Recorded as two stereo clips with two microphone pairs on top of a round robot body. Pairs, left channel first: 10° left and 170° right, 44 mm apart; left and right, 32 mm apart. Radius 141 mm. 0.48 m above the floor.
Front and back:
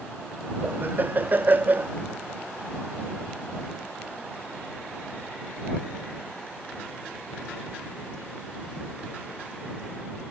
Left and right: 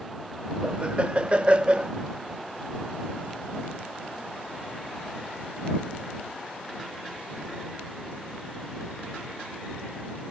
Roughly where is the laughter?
Behind right.